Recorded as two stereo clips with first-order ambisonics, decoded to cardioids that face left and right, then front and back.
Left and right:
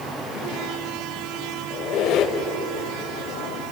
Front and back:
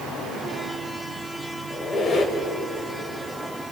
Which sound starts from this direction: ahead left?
A squeak, at 1.7 s.